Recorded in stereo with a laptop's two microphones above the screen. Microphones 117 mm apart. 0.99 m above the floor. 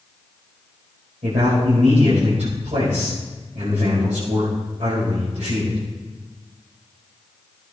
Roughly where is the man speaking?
Right.